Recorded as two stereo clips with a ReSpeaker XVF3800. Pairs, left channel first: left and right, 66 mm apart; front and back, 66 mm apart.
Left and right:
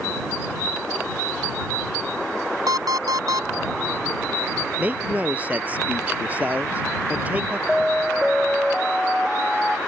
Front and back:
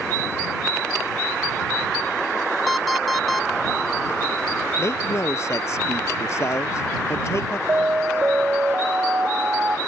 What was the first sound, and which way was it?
An alarm clock, 90° right.